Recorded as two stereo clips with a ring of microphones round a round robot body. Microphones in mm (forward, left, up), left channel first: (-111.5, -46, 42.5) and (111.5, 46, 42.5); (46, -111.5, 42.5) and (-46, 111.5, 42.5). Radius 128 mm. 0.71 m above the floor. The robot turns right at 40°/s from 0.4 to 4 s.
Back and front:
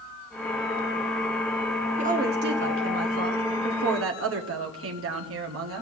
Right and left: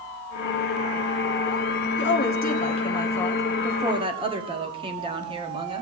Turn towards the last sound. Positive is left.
turn(degrees=45)